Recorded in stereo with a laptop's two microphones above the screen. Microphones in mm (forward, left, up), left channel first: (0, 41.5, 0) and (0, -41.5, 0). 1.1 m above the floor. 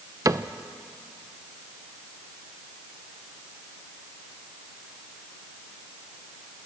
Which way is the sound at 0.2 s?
45° right (ahead or behind).